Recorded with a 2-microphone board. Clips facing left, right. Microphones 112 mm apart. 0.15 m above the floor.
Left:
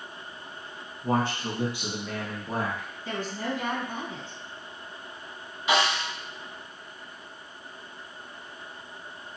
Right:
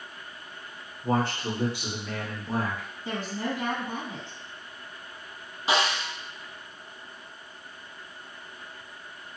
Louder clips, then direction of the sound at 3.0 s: Even; 20° right (ahead or behind).